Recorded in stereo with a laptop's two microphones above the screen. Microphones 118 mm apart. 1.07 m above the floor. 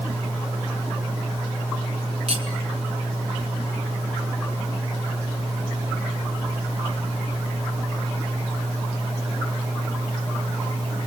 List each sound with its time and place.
2.3 s cutlery clinking: 55° right (ahead or behind), 2 m